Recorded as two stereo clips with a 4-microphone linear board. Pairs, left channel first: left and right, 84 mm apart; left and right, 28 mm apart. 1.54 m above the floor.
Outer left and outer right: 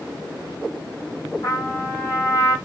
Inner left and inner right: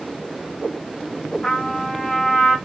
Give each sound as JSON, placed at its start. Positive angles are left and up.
{"t": 1.4, "sound": "a trumpet", "side_deg": 45, "distance_m": 1.8}